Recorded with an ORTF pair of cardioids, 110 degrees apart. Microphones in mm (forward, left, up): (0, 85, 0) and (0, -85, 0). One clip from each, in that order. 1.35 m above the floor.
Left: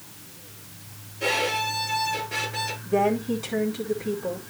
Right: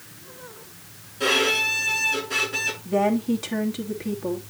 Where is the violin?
70° right, 5.5 m.